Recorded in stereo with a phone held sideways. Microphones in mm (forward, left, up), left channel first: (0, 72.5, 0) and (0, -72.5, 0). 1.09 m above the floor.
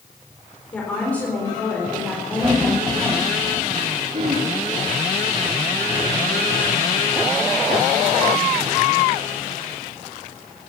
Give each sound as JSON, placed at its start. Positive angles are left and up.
{"t": 0.7, "sound": "a woman speaking", "side_deg": 10, "distance_m": 4.0}
{"t": 2.4, "sound": "laughter", "side_deg": -15, "distance_m": 2.5}
{"t": 4.1, "sound": "throat clearing", "side_deg": -60, "distance_m": 3.0}